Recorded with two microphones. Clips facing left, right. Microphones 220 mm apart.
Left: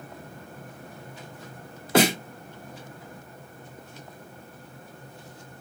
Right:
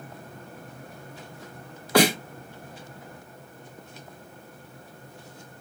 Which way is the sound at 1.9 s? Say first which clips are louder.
Even; 25° left (ahead or behind).